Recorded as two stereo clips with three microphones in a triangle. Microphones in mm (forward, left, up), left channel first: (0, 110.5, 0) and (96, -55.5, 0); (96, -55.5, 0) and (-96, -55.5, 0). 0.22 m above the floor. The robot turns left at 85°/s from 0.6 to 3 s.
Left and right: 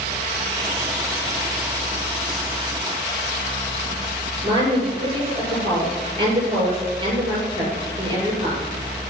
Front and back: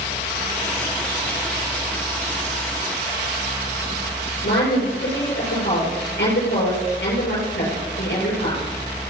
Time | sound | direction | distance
4.4 | a woman speaking | 5° left | 6 m